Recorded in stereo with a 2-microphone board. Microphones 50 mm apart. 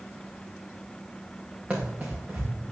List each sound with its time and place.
1.7 s running footsteps: 35° right (ahead or behind), 3 m